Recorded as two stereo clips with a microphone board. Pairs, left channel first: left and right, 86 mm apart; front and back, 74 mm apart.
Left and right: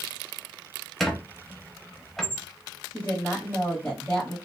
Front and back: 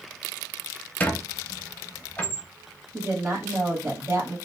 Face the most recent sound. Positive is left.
turn(degrees=150)